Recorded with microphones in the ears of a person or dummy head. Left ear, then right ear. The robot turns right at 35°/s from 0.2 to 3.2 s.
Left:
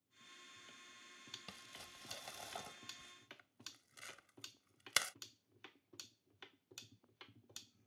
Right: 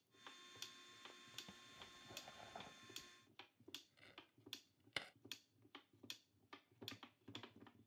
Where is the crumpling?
70° left (ahead or behind); by 5.2 s 50° left (ahead or behind).